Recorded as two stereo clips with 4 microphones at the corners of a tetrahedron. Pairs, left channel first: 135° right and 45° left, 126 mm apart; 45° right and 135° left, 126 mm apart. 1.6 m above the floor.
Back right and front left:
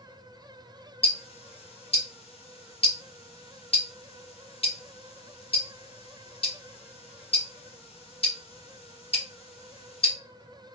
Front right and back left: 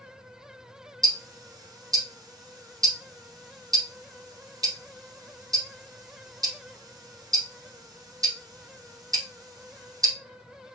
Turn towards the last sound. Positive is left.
turn(degrees=-165)